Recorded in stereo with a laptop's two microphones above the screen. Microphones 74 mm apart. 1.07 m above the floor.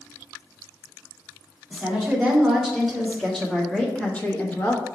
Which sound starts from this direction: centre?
A woman speaking, at 1.7 s.